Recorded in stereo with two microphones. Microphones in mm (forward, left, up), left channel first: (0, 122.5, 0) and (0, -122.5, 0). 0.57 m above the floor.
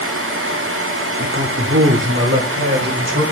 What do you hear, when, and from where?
1.2 s a man speaking: 45° right (ahead or behind), 1.1 m